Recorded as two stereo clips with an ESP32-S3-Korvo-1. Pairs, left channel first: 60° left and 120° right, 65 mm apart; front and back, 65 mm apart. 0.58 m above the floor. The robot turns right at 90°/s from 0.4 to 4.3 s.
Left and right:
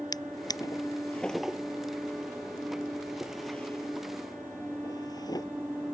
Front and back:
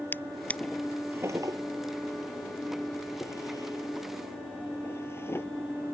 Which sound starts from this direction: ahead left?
A drawer, at 0.1 s.